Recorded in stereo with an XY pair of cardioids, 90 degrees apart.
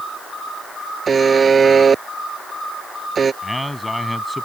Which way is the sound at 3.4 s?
15° left.